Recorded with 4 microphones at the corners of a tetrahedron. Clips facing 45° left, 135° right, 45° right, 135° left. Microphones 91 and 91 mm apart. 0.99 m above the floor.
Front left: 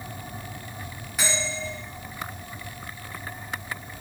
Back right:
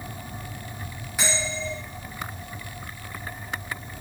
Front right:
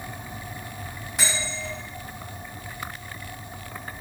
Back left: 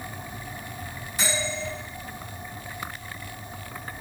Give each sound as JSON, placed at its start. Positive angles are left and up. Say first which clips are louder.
{"t": 1.2, "sound": "a bell", "louder": "back right 1 dB, back left 2 dB", "azimuth_deg": -50, "distance_m": 1.5}